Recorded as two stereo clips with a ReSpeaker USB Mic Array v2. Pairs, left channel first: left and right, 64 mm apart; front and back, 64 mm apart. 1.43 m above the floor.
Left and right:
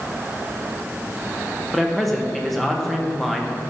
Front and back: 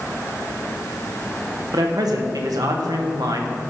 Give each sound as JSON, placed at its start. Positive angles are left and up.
{"t": 1.7, "sound": "a man speaking", "azimuth_deg": 180, "distance_m": 1.3}